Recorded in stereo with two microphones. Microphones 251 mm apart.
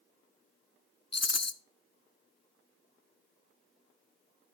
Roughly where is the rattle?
Left.